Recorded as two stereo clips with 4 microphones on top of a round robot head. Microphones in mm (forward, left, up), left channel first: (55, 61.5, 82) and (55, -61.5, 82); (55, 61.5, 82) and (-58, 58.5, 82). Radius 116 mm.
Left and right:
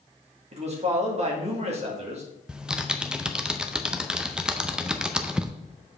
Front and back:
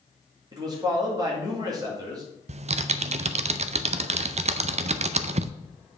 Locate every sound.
0.5 s a man speaking: 120° right, 2.5 m
2.5 s typing on a keyboard: 175° right, 0.5 m